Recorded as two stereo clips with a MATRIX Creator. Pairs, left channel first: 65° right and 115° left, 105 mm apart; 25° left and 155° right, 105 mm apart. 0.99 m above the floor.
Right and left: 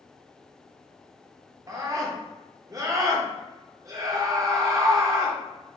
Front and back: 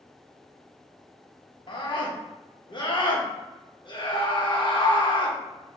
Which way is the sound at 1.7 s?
60° left.